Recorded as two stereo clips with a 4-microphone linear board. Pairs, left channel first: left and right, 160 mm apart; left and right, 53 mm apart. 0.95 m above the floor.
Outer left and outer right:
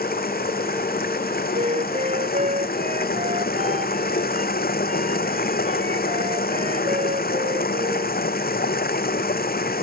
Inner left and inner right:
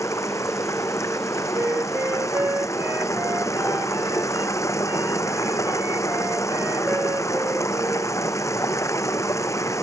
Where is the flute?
50° right (ahead or behind).